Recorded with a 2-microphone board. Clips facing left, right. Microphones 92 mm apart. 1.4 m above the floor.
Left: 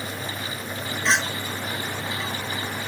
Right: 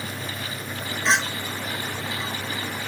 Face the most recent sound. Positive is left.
turn(degrees=-25)  # may be behind; listen again after turning